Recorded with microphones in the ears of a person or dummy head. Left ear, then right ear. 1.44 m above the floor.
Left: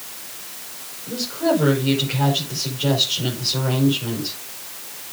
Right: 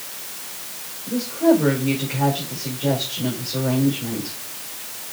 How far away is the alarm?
No alarm in this recording.